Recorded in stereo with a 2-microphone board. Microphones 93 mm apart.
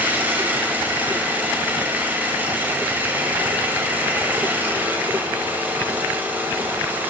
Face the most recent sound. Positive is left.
turn(degrees=-20)  # may be behind; listen again after turning